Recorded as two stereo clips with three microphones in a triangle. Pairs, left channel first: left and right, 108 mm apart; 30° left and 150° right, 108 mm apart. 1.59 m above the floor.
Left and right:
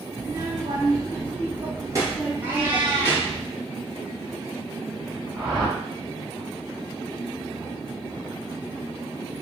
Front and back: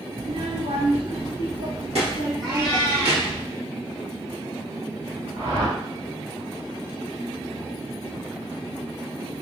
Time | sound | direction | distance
0.2 | a child speaking | 140° right | 0.8 m
2.4 | a cat meowing | 160° right | 1.2 m
5.3 | a whoosh | 130° right | 2 m